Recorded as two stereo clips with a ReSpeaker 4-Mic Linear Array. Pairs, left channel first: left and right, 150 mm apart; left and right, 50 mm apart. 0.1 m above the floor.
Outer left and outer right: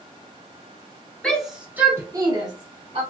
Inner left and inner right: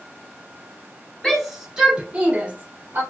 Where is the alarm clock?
I don't hear an alarm clock.